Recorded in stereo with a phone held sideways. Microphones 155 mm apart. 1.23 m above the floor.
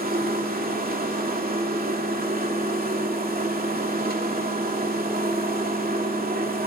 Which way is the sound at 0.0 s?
70° right (ahead or behind).